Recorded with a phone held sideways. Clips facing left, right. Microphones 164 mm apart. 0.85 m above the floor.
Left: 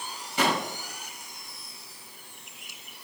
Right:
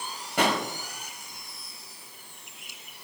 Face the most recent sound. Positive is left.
turn(degrees=-60)  # may be behind; listen again after turning